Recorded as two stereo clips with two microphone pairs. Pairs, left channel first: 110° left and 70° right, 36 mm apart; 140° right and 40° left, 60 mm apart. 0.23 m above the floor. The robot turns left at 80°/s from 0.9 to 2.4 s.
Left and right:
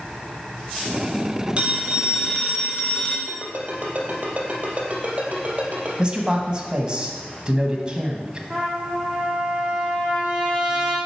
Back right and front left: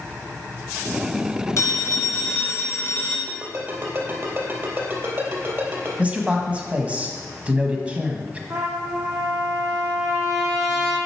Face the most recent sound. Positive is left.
turn(degrees=0)